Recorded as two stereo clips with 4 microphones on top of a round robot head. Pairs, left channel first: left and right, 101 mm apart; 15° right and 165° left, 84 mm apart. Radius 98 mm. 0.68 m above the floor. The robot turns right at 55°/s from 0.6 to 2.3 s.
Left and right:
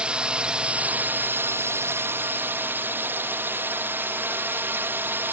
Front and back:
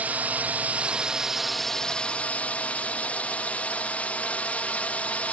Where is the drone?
155° right; by 5.3 s 60° right.